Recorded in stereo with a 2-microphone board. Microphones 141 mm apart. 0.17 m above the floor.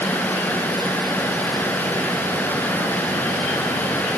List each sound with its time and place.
Only background noise.